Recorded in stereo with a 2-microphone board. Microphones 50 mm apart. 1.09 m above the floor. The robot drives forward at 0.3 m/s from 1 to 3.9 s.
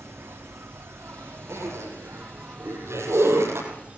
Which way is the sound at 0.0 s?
60° right (ahead or behind).